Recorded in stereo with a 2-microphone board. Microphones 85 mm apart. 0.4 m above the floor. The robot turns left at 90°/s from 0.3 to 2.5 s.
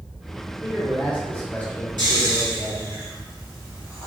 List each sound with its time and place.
0.6 s a man speaking: 5° left (ahead or behind), 0.9 m; by 3.0 s 5° right (ahead or behind), 0.9 m
2.0 s snoring: 60° right (ahead or behind), 2.0 m; by 4.1 s 30° right (ahead or behind), 2.0 m